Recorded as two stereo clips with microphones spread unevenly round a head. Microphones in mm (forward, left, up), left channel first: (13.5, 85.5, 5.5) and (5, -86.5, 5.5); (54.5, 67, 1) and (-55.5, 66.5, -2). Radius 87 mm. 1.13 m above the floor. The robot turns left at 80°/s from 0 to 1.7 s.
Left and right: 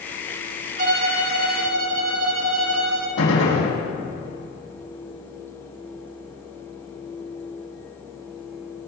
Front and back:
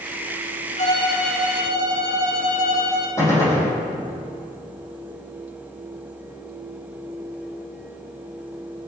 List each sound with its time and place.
0.8 s a violin: 45° right, 1.9 m; by 3.1 s 120° right, 1.9 m
3.2 s a gunshot: 65° left, 6.5 m